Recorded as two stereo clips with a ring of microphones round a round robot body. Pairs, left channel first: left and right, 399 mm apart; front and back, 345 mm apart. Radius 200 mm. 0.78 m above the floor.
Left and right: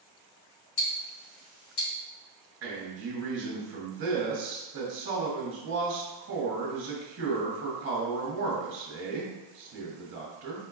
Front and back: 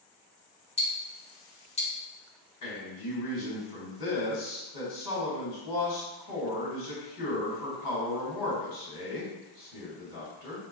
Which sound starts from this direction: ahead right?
A man speaking, at 2.6 s.